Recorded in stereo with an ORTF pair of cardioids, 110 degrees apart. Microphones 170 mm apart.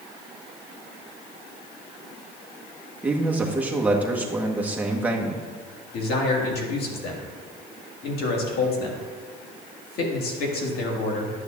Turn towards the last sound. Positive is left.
turn(degrees=65)